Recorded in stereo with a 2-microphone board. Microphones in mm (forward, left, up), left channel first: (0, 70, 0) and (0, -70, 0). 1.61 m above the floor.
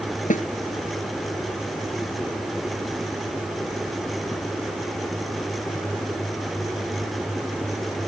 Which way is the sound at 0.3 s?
70° left (ahead or behind).